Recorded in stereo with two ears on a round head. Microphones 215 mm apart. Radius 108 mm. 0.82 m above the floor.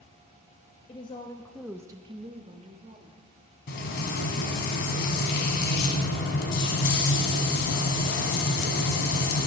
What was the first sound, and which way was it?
A woman speaking, 25° left (ahead or behind).